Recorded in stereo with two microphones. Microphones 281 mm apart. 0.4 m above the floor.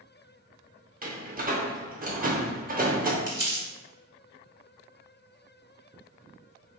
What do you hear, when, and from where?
1.0 s a door slam: 30° right (ahead or behind), 0.6 m
3.3 s crumpling: 15° right (ahead or behind), 1.8 m